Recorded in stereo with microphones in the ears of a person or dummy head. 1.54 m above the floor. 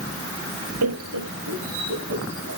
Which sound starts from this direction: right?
Laughter, at 0.8 s.